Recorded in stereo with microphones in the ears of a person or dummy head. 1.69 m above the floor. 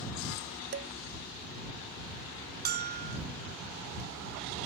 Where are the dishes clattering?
40° right (ahead or behind).